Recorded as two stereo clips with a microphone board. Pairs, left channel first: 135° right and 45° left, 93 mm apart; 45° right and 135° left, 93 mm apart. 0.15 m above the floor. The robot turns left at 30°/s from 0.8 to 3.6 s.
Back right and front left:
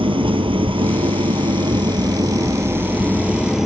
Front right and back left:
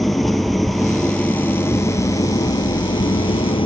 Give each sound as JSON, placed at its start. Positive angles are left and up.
{"t": 0.0, "sound": "an engine running", "azimuth_deg": 45, "distance_m": 1.3}